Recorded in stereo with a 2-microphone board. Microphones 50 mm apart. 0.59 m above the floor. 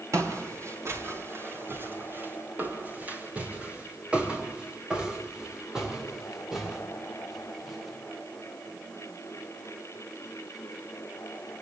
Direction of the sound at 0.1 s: 65° right (ahead or behind).